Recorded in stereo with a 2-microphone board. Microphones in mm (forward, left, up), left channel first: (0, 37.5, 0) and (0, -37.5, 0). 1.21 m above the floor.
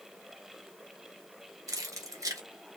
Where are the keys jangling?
50° right (ahead or behind), 1.2 m.